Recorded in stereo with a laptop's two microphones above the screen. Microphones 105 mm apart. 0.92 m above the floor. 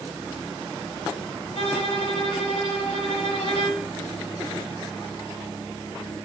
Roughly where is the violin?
Left.